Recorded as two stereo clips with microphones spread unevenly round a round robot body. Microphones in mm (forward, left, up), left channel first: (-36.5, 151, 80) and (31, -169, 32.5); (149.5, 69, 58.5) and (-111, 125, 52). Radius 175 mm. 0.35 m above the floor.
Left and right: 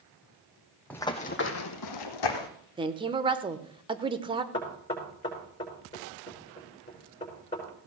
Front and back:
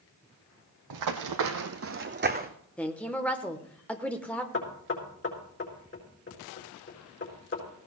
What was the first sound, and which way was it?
Running footsteps, 175° right.